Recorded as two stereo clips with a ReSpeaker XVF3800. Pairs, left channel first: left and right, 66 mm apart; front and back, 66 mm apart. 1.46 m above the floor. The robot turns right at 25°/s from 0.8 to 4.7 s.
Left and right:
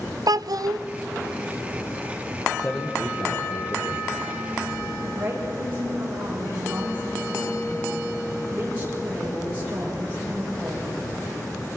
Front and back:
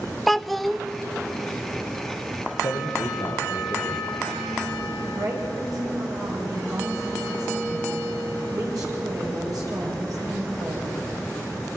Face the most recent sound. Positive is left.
turn(degrees=-150)